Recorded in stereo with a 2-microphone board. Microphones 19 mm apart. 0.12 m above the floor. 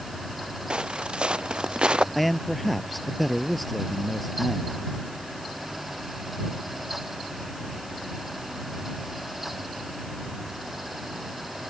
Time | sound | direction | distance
0.7 | footsteps | 70° right (ahead or behind) | ?
2.1 | a man speaking | 5° left (ahead or behind) | ?